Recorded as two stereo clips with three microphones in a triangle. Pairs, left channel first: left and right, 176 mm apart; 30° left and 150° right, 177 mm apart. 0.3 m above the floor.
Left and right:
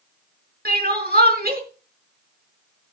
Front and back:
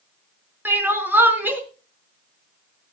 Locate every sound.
0.7 s crying: 70° right, 3.5 m